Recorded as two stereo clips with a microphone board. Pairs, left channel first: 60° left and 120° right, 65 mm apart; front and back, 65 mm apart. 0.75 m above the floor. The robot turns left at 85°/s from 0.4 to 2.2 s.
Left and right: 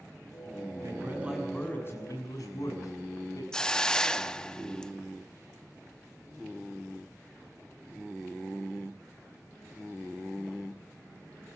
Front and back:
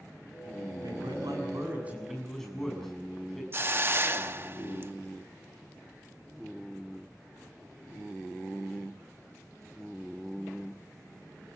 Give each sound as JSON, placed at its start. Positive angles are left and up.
{"t": 0.8, "sound": "a man speaking", "azimuth_deg": -155, "distance_m": 6.5}
{"t": 3.5, "sound": "a hiss", "azimuth_deg": 135, "distance_m": 0.9}